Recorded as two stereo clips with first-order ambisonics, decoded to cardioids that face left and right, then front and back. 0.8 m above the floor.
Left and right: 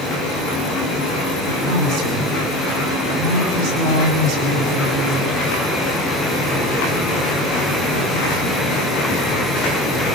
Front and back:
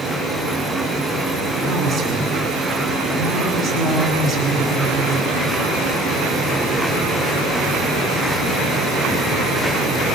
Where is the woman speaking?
105° right, 8.5 m.